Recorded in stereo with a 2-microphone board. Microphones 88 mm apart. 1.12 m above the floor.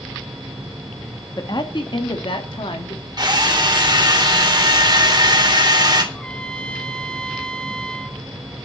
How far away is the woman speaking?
About 2 m.